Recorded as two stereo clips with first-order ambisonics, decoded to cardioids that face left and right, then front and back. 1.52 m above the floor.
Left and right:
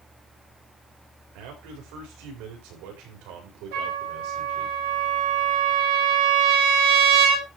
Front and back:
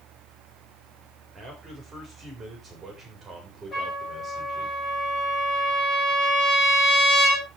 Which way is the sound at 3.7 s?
75° right.